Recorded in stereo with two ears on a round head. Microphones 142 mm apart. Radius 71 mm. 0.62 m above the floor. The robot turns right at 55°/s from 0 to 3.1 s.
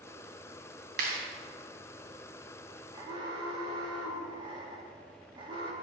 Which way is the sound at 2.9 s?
25° right (ahead or behind).